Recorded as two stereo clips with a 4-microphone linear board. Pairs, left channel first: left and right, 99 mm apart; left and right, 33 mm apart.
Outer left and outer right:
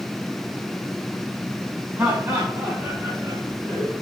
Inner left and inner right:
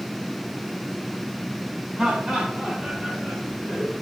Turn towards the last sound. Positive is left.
turn(degrees=-45)  # may be behind; listen again after turning